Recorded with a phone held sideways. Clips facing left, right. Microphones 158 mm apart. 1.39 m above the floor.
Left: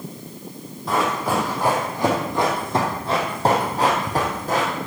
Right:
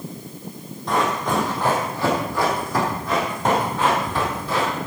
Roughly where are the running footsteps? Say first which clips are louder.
Even; centre.